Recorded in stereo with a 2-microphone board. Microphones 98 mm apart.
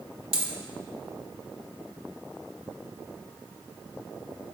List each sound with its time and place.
0.3 s a dropped coin: 65° right (ahead or behind), 0.9 m